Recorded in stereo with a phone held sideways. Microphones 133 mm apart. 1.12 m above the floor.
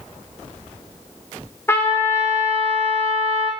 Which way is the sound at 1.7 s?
20° left (ahead or behind).